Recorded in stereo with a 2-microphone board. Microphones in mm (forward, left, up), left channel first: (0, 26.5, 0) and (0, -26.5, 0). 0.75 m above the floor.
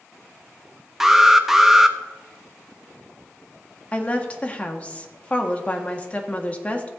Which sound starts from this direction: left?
A woman speaking, at 3.9 s.